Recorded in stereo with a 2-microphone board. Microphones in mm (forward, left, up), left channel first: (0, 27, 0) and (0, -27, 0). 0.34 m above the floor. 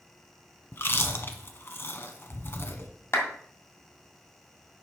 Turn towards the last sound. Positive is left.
turn(degrees=50)  # may be behind; listen again after turning